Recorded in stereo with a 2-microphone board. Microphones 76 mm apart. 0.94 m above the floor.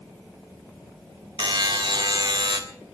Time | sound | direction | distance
1.4 | a buzzer | 70° right (ahead or behind) | 2 m